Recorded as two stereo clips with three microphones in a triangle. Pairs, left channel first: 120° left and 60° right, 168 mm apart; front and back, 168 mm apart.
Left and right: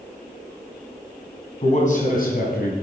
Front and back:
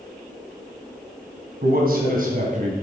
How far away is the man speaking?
About 2.5 m.